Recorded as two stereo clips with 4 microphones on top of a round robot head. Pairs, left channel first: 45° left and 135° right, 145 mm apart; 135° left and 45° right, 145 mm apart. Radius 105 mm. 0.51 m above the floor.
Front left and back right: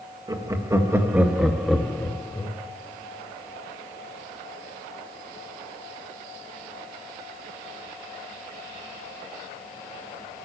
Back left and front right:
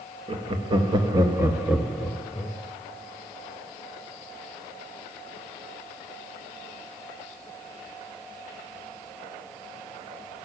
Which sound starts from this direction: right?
Laughter, at 0.3 s.